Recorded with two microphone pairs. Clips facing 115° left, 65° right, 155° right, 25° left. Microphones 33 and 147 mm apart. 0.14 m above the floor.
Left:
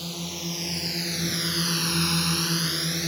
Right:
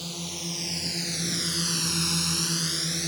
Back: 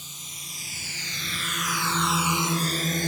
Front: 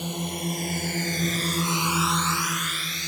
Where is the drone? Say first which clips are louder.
Left 2 dB, front 20 dB; 30° left; by 3.1 s 170° right.